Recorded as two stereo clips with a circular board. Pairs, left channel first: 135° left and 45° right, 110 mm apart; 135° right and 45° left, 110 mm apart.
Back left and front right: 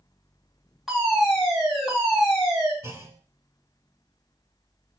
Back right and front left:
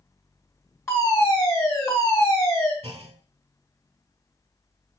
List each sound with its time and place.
0.9 s a fire alarm: 130° right, 2.5 m
2.8 s a clunk: 20° left, 0.5 m